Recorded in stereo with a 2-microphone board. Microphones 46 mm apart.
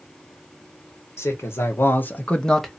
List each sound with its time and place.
1.2 s a man speaking: 75° left (ahead or behind), 1.5 m; by 2.7 s centre (ahead or behind), 0.9 m